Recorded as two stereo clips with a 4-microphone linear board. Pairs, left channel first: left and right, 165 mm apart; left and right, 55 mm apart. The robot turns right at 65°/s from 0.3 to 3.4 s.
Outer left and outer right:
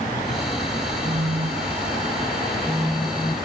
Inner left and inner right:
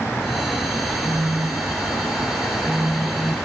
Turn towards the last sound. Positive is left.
turn(degrees=20)